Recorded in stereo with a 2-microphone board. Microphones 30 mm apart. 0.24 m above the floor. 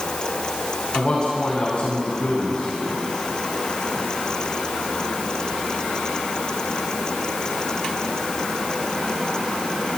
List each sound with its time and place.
0.9 s a man speaking: 45° left (ahead or behind), 2.5 m